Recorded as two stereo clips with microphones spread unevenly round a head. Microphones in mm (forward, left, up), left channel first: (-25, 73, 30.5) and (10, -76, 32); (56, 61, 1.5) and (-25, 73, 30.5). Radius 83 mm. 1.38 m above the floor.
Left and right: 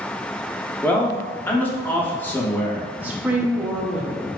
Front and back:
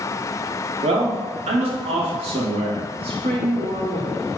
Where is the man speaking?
Straight behind, 0.8 m.